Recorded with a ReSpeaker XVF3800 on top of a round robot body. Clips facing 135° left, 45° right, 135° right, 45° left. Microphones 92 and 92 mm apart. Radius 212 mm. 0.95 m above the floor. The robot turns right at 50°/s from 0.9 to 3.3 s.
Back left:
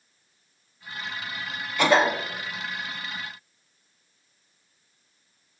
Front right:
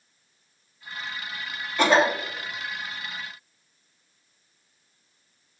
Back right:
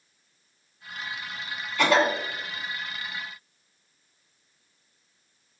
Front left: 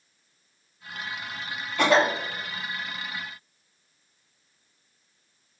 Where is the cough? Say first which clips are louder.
Even, front left 1 dB; 5° left, 1.7 m; by 2.1 s 25° left, 1.7 m.